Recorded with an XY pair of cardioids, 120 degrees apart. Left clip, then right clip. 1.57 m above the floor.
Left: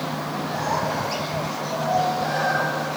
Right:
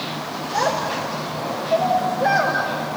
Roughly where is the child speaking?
Ahead right.